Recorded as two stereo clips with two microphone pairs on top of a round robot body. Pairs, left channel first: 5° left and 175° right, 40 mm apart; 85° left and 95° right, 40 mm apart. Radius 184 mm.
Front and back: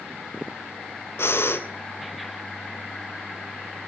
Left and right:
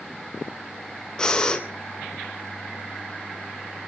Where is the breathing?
10° left, 2.5 m.